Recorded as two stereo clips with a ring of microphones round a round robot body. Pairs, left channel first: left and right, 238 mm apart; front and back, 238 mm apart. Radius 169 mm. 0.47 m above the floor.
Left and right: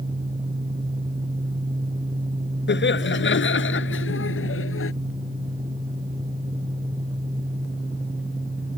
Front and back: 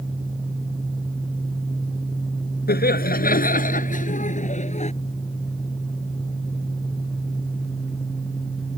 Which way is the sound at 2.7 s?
50° left.